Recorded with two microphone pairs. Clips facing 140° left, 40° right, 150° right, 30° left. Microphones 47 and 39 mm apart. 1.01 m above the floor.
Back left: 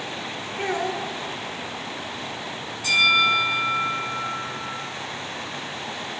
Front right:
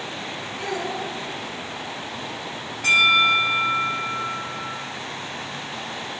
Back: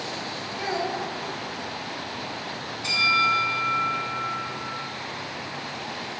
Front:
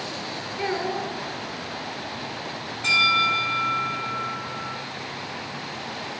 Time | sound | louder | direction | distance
0.6 | a child speaking | back left 3 dB, front 1 dB | 95° left | 2.5 m
2.8 | a bell | front right 2 dB, front 2 dB | straight ahead | 5.5 m